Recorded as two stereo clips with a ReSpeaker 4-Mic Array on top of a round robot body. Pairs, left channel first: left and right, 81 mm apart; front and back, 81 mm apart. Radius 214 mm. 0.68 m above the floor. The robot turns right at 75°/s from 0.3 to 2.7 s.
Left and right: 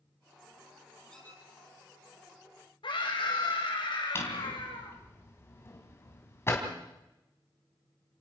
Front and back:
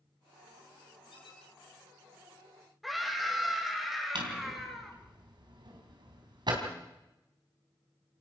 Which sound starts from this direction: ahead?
A squeak, at 1.1 s.